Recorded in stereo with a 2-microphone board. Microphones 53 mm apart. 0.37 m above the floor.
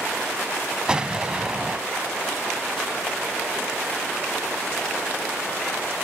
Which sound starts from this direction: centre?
An explosion, at 0.9 s.